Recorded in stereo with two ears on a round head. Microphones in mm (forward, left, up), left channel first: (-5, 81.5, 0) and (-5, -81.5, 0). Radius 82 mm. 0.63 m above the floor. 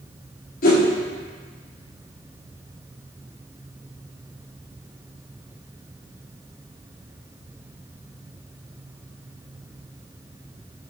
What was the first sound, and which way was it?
A whoosh, 50° left (ahead or behind).